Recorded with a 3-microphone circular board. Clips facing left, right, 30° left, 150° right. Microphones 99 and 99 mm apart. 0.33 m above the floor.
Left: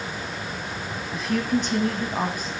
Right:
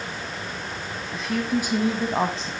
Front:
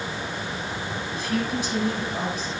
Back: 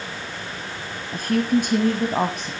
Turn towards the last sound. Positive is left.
turn(degrees=-150)